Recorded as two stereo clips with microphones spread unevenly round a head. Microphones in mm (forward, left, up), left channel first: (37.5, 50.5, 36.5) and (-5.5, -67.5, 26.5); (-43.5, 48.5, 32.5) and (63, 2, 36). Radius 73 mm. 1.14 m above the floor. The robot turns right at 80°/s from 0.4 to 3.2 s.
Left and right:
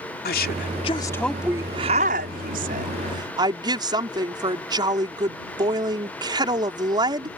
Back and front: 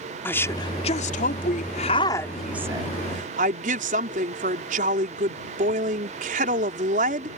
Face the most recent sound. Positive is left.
turn(degrees=-50)